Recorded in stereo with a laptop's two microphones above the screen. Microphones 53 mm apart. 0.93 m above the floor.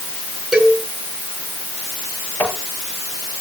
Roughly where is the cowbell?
Centre.